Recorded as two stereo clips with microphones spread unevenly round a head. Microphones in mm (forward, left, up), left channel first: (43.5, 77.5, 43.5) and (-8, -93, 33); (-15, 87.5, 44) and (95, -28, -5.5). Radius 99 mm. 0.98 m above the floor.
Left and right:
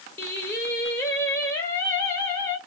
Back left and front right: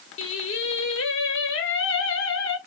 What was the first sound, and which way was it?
Singing, 150° left.